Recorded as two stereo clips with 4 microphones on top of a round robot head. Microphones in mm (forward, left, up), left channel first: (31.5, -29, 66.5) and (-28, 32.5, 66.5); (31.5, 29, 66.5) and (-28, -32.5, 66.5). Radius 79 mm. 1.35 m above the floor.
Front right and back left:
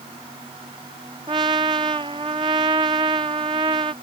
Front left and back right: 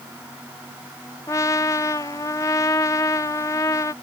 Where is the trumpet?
100° left.